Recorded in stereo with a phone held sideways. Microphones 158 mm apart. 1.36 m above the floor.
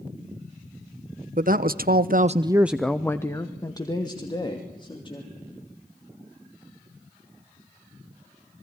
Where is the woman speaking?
60° right (ahead or behind), 1.2 m; by 5.3 s 30° left (ahead or behind), 3.5 m.